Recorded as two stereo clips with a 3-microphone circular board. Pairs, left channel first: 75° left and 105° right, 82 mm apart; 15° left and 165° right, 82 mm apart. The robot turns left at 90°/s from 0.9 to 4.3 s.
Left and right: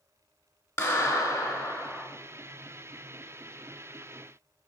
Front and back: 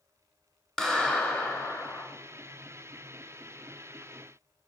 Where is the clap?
105° left, 1.0 m; by 2.0 s straight ahead, 1.0 m.